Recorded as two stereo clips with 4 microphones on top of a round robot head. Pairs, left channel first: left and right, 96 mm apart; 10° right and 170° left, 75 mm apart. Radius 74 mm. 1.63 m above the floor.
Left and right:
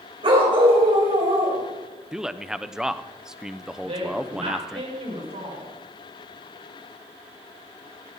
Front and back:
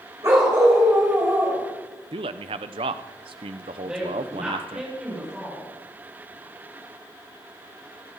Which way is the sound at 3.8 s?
110° right.